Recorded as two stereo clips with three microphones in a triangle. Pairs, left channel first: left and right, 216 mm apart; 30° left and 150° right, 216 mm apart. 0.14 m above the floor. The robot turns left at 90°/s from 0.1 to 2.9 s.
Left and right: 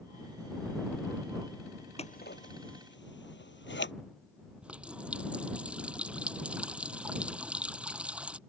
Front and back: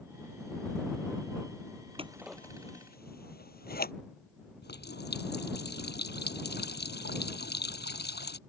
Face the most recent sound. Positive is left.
turn(degrees=-5)